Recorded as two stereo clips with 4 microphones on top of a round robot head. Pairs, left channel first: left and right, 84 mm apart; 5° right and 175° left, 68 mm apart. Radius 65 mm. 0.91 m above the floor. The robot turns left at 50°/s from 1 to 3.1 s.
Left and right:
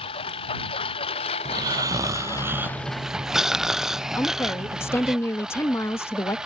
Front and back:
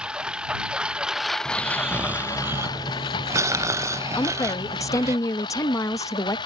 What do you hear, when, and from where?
0.0 s a lawn mower: 100° left; by 6.5 s 5° right
1.4 s snoring: 90° right; by 5.2 s 170° right
4.2 s a woman speaking: 30° left